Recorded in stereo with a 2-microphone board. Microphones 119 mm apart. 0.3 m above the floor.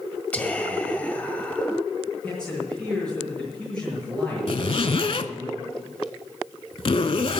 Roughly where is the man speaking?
Centre.